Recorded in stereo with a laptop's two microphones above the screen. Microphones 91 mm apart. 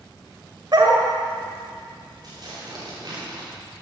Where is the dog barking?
55° right (ahead or behind), 1.8 m.